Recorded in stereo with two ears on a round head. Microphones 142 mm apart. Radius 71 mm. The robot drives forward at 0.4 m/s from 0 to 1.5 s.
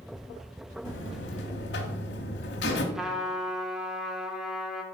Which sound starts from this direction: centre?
A trumpet, at 3.0 s.